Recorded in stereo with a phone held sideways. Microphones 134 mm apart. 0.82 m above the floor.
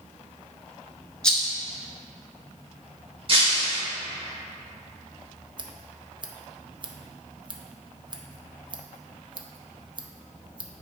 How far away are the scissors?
About 0.6 m.